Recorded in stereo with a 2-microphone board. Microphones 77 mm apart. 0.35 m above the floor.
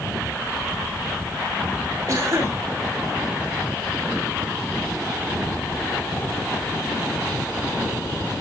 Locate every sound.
2.1 s a cough: 40° right (ahead or behind), 2 m